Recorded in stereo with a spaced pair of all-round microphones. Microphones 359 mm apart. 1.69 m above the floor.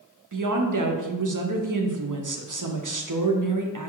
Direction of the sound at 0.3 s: 60° right (ahead or behind).